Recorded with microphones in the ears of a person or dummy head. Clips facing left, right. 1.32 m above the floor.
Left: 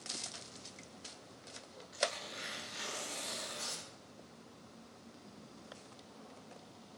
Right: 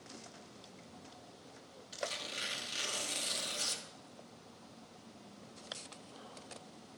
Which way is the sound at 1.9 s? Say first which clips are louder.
Left 3 dB; 40° right (ahead or behind).